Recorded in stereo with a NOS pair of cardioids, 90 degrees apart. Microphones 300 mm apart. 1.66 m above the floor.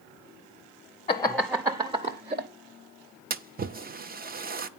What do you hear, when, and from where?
1.1 s laughter: 20° left, 0.7 m; by 2.5 s 30° right, 1.2 m
3.3 s a splash: 30° right, 0.7 m